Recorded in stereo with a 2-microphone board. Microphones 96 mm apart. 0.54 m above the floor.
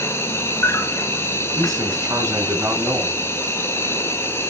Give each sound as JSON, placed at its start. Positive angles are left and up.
{"t": 0.0, "sound": "an insect", "side_deg": 30, "distance_m": 1.8}
{"t": 1.6, "sound": "a man speaking", "side_deg": -40, "distance_m": 5.0}